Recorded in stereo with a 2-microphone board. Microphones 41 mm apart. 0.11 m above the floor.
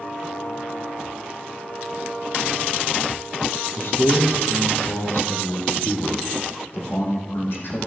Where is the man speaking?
55° left (ahead or behind), 2.5 m; by 7.8 s 65° left (ahead or behind), 4.5 m.